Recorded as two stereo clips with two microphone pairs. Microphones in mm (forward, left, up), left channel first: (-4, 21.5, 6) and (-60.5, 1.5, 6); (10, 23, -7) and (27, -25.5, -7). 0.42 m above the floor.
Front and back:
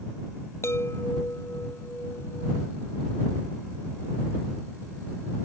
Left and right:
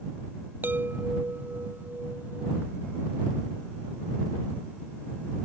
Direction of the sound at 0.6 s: 20° right.